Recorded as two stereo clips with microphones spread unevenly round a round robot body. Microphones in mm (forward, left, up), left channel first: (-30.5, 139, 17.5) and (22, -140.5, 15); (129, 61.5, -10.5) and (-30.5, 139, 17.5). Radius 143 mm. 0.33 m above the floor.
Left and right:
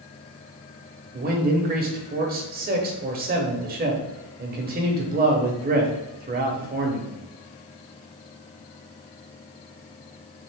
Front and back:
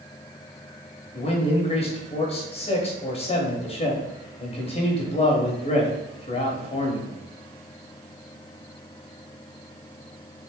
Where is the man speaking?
40° right, 1.1 m.